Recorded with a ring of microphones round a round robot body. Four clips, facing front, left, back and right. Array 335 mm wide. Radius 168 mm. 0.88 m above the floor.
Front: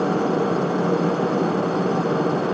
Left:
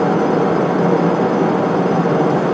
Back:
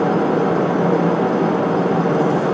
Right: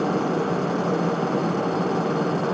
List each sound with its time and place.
Only background noise.